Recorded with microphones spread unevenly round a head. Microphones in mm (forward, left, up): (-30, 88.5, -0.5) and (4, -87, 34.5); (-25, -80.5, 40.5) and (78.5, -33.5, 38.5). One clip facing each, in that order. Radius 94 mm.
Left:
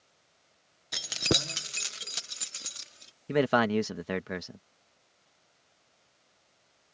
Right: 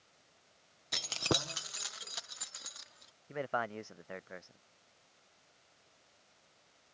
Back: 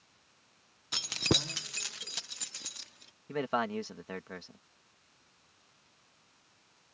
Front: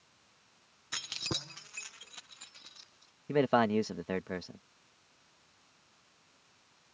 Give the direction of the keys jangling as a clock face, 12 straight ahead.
5 o'clock.